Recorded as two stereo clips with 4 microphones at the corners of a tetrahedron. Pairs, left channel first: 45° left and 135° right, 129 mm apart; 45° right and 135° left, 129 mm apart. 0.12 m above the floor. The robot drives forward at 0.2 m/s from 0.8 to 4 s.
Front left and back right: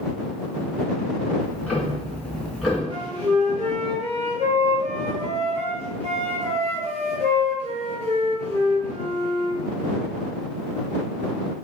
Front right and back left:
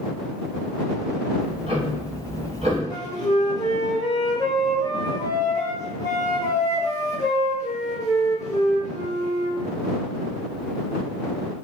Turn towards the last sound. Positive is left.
turn(degrees=-110)